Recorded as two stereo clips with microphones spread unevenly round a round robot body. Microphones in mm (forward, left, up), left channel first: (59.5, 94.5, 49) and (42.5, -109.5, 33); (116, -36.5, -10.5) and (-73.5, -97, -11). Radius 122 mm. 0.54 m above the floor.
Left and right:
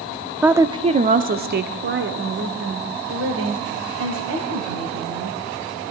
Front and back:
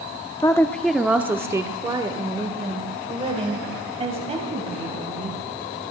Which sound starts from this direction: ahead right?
A woman speaking, at 0.4 s.